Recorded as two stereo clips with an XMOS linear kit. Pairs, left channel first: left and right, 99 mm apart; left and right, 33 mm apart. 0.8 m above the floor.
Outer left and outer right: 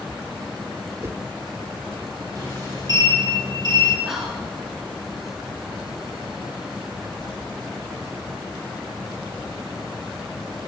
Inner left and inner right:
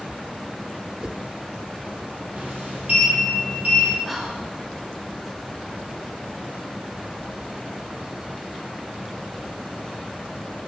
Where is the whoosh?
25° right (ahead or behind), 0.6 m.